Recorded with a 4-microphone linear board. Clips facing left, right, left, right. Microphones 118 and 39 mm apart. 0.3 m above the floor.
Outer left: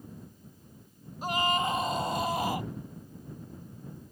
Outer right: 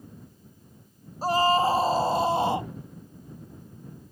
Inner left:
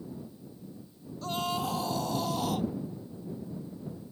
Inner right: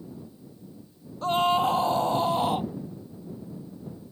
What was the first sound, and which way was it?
A scream, 35° right (ahead or behind).